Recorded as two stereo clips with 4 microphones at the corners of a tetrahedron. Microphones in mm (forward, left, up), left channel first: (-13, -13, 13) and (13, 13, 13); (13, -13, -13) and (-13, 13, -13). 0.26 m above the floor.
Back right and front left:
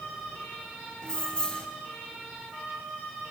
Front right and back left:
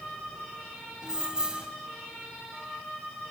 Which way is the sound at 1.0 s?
Straight behind.